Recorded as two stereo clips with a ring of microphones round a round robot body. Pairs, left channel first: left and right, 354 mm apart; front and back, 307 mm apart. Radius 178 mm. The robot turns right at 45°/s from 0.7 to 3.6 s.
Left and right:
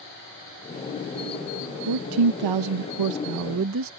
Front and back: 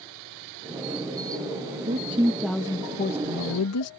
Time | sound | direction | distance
1.9 | a woman speaking | 120° right | ?